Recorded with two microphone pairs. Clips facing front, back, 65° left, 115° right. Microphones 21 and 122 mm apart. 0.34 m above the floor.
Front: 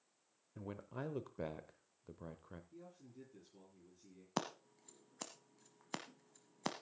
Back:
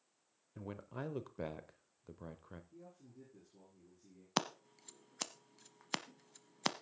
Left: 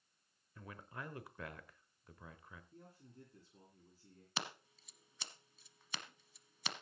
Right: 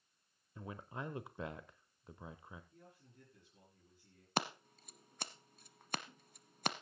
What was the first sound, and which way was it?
A man speaking, 115° right.